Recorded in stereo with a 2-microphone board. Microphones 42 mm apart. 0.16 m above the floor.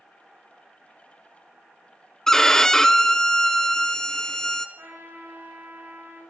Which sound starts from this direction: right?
A trumpet, at 4.8 s.